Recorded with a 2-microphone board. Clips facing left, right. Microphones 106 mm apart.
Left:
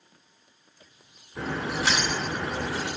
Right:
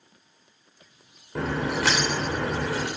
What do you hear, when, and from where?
1.4 s a crack: 80° right, 4.5 m